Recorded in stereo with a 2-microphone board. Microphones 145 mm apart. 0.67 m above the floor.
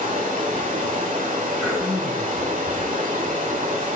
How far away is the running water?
About 1.3 m.